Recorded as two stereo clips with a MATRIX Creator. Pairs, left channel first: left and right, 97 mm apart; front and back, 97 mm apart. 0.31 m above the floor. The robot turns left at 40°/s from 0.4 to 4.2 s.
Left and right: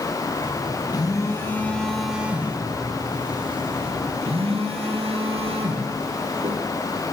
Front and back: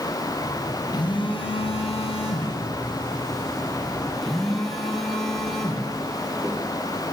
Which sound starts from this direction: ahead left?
A phone buzzing, at 0.9 s.